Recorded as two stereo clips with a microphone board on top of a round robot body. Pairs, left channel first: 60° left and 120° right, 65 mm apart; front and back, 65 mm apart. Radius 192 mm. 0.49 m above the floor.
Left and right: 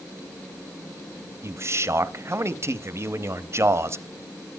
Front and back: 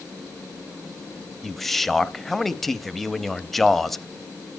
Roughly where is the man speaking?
Right.